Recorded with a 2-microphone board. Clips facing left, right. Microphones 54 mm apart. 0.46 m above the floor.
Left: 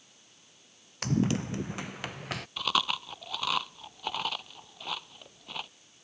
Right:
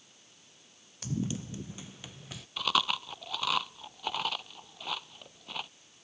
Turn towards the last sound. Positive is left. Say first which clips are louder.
# right 1 dB
turn(degrees=0)  # may be behind; listen again after turning